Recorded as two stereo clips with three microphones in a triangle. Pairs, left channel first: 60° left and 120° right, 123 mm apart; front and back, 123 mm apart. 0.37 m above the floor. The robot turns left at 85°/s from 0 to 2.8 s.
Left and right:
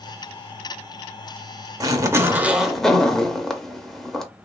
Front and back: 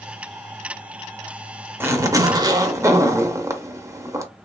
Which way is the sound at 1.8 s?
130° right.